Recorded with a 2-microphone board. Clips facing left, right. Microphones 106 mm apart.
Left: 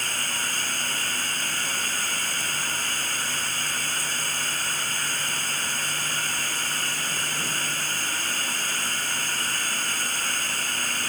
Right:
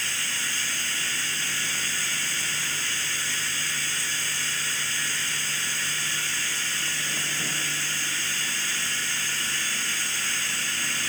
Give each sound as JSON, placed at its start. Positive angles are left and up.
{"t": 0.0, "sound": "running water", "side_deg": 45}